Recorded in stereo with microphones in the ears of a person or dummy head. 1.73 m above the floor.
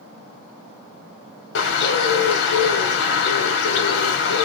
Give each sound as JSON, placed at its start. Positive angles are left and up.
{"t": 1.6, "sound": "a bird", "side_deg": 60, "distance_m": 1.4}